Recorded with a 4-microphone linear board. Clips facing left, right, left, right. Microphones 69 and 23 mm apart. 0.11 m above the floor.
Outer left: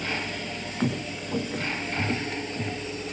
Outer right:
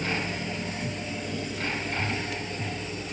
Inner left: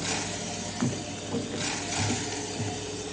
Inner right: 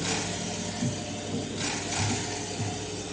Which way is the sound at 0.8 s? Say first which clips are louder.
Outer left 4 dB, inner left 1 dB; 60° left (ahead or behind).